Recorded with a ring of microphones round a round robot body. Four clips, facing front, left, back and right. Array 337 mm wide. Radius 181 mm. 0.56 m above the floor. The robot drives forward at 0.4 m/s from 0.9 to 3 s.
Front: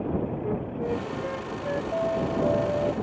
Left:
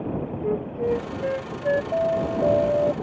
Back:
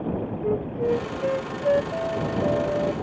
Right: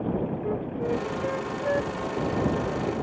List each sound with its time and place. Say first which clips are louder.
0.4 s a flute: left 4 dB, back 5 dB; 135° left; by 1.8 s 145° left
1.9 s an alarm: left 6 dB, even; 115° left